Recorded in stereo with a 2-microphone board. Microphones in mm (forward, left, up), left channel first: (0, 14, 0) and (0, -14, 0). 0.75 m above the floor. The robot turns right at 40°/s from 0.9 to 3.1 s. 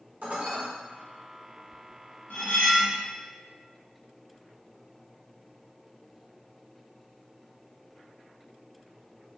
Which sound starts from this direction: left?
Cutlery clinking, at 2.3 s.